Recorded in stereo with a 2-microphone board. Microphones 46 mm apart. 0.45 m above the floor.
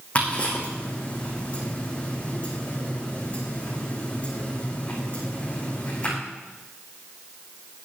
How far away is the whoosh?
I don't hear a whoosh.